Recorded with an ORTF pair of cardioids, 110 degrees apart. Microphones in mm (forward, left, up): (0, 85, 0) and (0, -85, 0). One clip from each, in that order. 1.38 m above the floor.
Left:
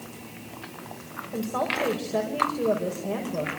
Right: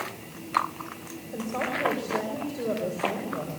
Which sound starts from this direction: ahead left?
A woman speaking, at 1.3 s.